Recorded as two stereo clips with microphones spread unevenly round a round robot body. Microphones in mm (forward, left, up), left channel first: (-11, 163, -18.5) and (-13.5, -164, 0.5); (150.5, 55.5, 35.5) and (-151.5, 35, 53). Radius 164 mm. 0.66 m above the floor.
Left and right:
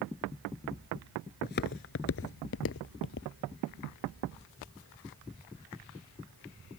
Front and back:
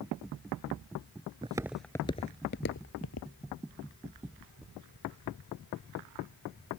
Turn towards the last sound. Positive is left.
turn(degrees=35)